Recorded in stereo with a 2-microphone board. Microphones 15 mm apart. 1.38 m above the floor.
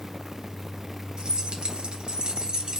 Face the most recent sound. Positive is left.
turn(degrees=-45)  # may be behind; listen again after turning